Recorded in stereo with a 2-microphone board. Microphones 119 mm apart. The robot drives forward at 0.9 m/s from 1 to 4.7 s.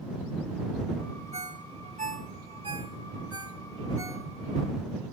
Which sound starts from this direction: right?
A ringtone, at 1.3 s.